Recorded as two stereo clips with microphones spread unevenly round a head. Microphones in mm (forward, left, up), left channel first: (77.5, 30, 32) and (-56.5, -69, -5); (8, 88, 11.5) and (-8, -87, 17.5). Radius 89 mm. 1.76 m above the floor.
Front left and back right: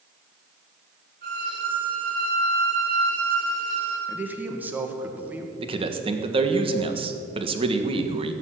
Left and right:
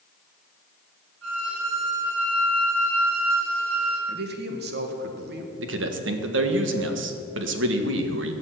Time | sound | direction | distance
1.2 | a violin | 110° right | 5 m
4.1 | a man speaking | 60° right | 1.9 m
5.6 | a man speaking | 80° right | 1.5 m